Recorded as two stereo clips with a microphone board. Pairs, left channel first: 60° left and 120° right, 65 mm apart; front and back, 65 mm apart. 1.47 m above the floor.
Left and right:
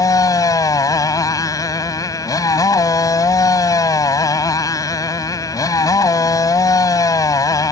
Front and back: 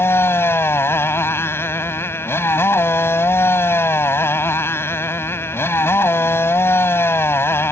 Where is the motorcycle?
50° left.